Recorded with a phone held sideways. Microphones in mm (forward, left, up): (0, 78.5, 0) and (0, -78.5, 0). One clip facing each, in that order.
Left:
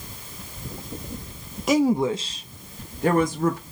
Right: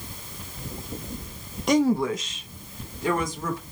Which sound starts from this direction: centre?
A woman speaking, at 1.7 s.